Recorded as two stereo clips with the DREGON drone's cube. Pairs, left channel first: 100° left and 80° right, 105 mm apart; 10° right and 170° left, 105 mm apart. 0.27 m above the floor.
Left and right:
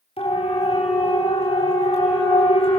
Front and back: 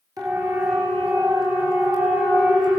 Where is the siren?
120° left, 7.5 m; by 2.8 s 115° left, 9.5 m.